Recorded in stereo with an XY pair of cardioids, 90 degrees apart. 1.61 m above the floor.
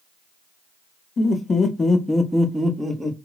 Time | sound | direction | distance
1.2 | laughter | 55° left | 0.9 m